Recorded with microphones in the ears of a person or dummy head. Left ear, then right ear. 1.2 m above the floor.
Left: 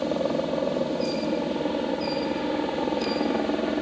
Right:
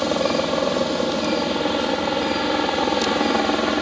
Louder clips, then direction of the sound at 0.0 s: Right 5 dB; 50° right (ahead or behind).